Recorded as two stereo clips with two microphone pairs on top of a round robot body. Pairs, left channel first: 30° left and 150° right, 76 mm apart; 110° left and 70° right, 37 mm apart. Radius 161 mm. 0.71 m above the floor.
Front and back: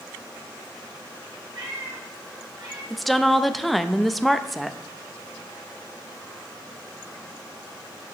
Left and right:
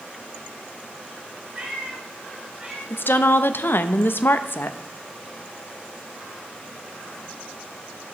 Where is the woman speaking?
120° left, 0.8 m.